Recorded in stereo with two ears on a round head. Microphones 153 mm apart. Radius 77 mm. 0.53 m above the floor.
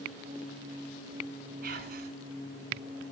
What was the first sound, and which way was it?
Whispering, 50° right (ahead or behind).